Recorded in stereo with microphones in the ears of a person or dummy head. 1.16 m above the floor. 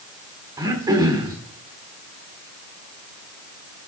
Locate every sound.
0.6 s throat clearing: 15° right (ahead or behind), 1.6 m